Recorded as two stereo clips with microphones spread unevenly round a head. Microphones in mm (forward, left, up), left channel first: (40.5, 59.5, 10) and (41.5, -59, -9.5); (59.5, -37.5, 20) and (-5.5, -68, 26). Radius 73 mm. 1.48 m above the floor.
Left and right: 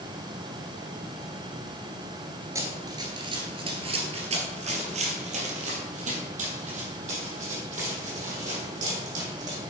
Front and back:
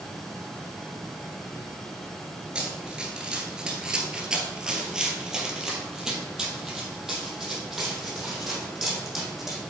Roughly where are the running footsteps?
Behind right.